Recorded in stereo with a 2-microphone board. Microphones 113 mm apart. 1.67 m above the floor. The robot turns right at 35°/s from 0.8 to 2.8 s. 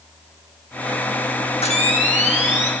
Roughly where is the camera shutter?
Ahead left.